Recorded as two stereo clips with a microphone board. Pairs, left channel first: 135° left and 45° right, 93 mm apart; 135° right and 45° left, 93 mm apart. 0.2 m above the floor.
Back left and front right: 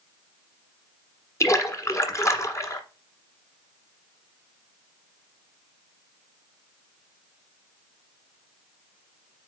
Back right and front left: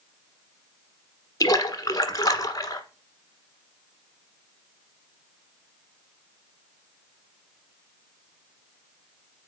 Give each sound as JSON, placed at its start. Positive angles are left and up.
{"t": 1.4, "sound": "a splash", "azimuth_deg": -175, "distance_m": 1.2}